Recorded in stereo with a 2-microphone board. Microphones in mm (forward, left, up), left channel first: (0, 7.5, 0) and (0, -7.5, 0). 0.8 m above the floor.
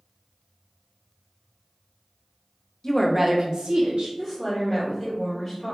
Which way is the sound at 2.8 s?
35° left (ahead or behind).